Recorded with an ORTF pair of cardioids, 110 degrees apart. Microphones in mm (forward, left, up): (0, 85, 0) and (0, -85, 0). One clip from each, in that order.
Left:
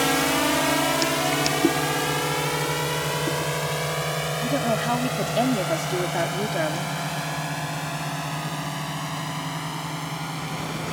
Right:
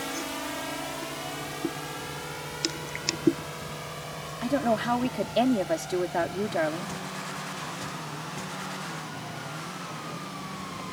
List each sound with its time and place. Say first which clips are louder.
0.0 s a drone: left 12 dB; 65° left
4.4 s a woman speaking: even; 5° right